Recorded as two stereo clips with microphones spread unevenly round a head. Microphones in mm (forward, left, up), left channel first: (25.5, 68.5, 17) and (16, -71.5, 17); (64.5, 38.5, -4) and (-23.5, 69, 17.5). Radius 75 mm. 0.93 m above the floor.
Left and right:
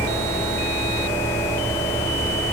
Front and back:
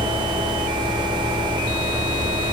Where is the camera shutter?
No camera shutter in this recording.